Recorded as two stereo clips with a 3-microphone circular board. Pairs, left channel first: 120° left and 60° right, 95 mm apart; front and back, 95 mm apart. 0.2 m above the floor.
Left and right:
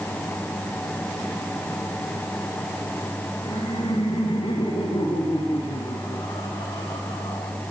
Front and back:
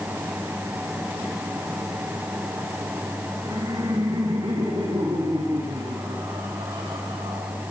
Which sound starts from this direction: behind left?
Laughter, at 3.4 s.